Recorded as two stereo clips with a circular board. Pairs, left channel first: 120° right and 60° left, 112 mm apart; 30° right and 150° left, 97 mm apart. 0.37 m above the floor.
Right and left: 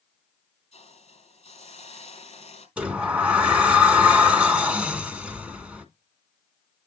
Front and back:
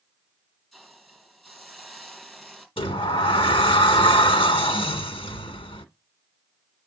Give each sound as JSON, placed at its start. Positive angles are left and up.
{"t": 0.7, "sound": "a hiss", "azimuth_deg": -115, "distance_m": 4.0}
{"t": 2.8, "sound": "a sliding door", "azimuth_deg": -20, "distance_m": 1.9}